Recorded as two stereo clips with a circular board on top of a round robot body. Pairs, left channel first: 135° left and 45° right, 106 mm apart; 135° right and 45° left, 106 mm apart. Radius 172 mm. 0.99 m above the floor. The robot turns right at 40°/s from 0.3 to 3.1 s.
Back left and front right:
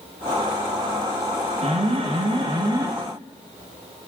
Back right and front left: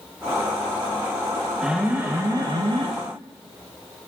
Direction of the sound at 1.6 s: 40° right.